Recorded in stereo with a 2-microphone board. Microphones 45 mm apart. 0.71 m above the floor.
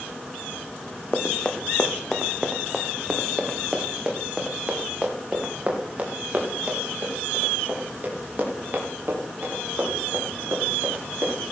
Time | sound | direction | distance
1.1 | running footsteps | 25° left (ahead or behind) | 1.5 m